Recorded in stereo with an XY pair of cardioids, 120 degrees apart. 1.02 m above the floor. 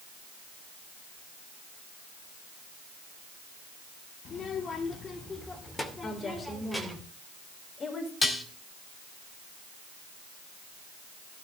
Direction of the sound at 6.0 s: 40° left.